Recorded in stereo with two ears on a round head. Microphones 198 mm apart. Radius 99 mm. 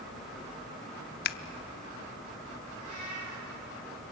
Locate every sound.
1.2 s scissors: 50° left (ahead or behind), 0.8 m
2.8 s a cat meowing: 85° right, 9.5 m